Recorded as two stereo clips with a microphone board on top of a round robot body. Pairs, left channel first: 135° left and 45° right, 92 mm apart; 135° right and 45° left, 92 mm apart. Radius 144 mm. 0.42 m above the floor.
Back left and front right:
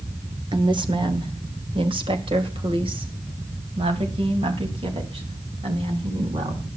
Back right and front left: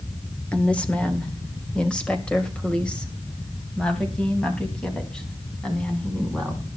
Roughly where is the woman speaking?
Ahead right.